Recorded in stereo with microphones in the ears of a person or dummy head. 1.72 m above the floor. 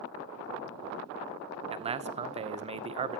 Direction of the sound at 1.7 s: 35° right (ahead or behind).